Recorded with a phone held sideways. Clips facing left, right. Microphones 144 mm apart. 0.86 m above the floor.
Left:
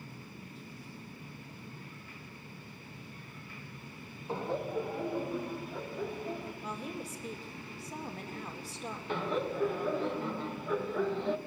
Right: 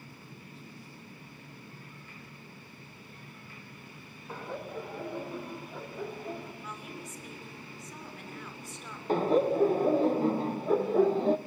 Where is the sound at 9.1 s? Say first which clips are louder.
Right 9 dB; 40° right (ahead or behind), 0.7 m.